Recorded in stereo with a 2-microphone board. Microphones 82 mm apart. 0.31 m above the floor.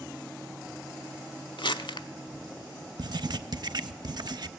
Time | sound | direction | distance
1.6 | crumpling | 85° left | 0.6 m
3.0 | writing | 60° right (ahead or behind) | 0.5 m